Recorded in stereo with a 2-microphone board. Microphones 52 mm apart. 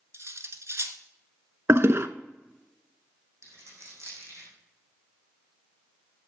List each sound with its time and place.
0.1 s cutlery clinking: 55° right (ahead or behind), 1.2 m
1.7 s a toilet flushing: 55° right (ahead or behind), 0.6 m
3.4 s a dropped coin: 55° right (ahead or behind), 4.5 m